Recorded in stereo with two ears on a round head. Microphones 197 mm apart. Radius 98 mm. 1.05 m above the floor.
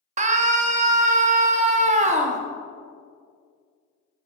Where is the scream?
35° right (ahead or behind), 1.4 m.